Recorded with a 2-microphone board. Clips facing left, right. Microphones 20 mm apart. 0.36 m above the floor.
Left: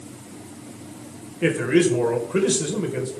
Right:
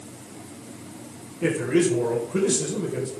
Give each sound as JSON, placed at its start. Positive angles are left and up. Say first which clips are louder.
{"t": 1.4, "sound": "a man speaking", "louder": "left 3 dB", "side_deg": 35, "distance_m": 1.6}